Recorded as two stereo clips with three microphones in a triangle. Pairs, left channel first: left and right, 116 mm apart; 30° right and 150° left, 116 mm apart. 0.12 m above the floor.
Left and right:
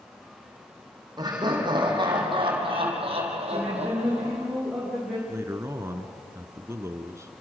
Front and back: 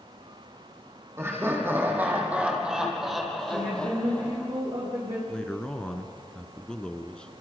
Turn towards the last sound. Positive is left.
turn(degrees=-100)